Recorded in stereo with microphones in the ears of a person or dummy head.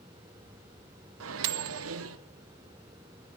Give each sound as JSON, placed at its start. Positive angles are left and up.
{"t": 1.2, "sound": "a microwave", "side_deg": -75, "distance_m": 0.6}